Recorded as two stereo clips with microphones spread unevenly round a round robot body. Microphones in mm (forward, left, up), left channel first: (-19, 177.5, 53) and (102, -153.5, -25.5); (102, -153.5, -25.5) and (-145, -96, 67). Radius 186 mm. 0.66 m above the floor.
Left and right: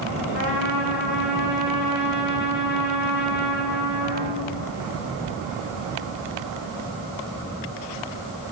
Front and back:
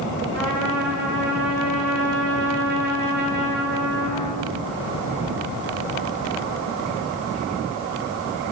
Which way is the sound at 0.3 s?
155° left.